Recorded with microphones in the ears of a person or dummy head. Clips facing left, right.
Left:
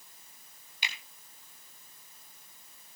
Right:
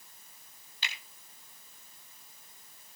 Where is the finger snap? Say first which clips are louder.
Left 1 dB; 15° left (ahead or behind), 4 m.